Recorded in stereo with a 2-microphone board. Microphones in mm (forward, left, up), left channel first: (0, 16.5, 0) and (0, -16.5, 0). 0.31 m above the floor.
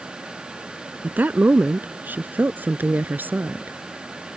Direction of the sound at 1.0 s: 60° right (ahead or behind).